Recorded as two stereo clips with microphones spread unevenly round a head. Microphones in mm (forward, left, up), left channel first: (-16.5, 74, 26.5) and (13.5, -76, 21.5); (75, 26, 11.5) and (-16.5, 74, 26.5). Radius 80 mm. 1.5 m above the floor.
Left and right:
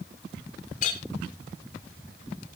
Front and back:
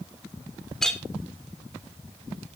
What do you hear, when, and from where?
0.8 s a clink: 60° left, 3 m